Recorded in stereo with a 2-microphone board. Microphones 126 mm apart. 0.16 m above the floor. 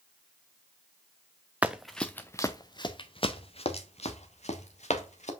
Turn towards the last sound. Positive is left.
turn(degrees=65)  # may be behind; listen again after turning